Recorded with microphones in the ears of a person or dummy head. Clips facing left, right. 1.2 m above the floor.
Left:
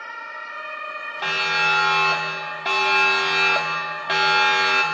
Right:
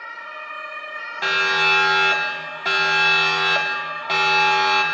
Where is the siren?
20° right (ahead or behind), 3.5 m; by 4.8 s 15° left (ahead or behind), 2.5 m.